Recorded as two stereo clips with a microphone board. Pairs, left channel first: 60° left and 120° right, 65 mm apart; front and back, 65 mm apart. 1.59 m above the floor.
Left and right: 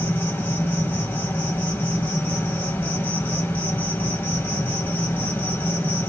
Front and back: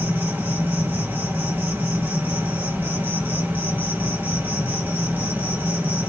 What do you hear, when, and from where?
0.0 s an insect: 120° left, 3 m